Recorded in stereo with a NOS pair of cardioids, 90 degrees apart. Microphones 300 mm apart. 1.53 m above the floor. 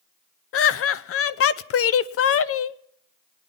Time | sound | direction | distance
0.5 | laughter | 50° left | 0.6 m